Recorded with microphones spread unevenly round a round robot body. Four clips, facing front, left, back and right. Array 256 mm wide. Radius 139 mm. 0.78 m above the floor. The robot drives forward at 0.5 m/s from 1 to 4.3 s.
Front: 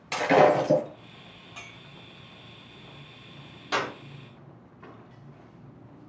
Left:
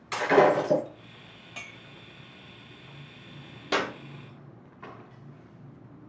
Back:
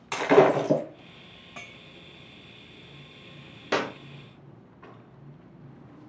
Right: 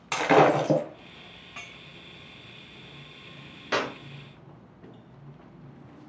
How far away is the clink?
About 0.5 m.